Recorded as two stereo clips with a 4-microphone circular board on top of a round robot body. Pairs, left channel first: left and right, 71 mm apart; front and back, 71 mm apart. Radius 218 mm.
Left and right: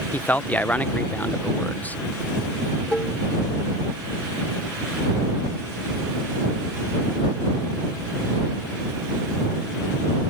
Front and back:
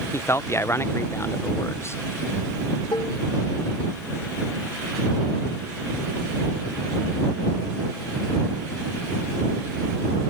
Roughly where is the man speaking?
Ahead left.